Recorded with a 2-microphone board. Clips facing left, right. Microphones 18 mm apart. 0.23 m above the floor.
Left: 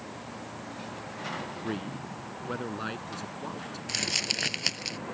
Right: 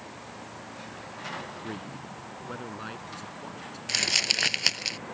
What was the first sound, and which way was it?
A man speaking, 20° left (ahead or behind).